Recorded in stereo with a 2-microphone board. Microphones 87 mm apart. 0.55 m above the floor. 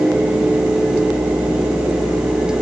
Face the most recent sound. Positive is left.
No sound to turn to.